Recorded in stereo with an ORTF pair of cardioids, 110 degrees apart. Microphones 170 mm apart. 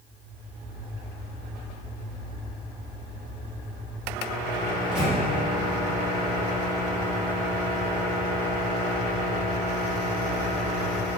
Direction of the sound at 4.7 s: 5° right.